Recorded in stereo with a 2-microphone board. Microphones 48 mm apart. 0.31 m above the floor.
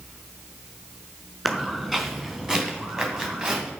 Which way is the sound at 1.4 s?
5° right (ahead or behind).